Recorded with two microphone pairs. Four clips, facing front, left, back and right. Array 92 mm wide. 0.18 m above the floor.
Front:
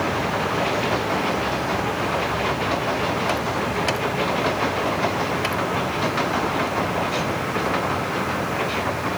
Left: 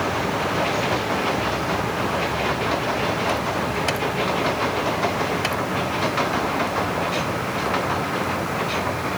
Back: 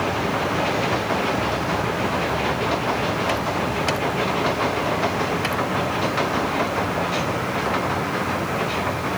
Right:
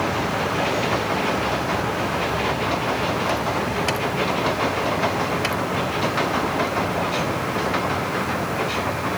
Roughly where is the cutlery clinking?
No cutlery clinking in this recording.